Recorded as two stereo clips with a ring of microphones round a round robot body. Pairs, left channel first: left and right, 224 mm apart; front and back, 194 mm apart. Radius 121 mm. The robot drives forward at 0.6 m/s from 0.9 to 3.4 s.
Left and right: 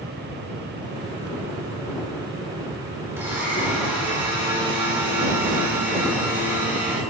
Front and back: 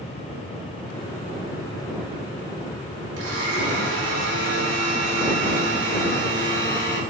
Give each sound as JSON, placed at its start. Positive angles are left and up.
{"t": 3.2, "sound": "a blender", "azimuth_deg": -170, "distance_m": 3.0}